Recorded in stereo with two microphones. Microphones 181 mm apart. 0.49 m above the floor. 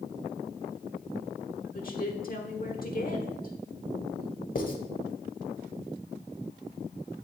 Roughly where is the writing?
Left.